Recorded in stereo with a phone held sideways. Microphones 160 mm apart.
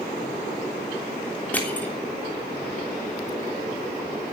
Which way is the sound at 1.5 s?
10° left (ahead or behind).